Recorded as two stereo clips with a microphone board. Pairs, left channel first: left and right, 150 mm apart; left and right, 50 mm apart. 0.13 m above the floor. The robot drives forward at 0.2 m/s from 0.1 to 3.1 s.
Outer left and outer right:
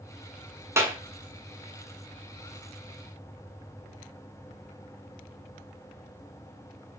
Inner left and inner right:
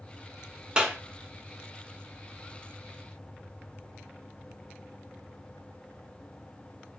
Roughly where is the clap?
Centre.